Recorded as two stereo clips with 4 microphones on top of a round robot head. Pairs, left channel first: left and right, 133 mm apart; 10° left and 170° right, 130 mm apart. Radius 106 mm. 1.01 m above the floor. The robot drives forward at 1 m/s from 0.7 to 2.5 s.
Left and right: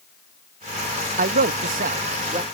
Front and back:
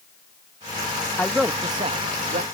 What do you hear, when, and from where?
1.2 s a man speaking: 70° right; by 2.4 s 140° right